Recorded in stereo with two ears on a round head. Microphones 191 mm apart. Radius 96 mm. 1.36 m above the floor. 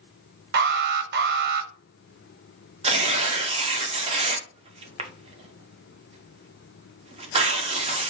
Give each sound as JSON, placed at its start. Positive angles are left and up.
{"t": 0.5, "sound": "an alarm", "side_deg": -50, "distance_m": 0.7}
{"t": 2.8, "sound": "tearing paper", "side_deg": -25, "distance_m": 0.7}